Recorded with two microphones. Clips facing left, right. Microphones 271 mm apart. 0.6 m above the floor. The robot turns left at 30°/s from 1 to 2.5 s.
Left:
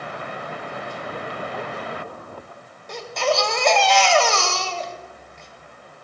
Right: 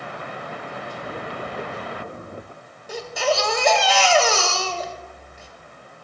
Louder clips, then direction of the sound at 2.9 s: Even; 5° right (ahead or behind).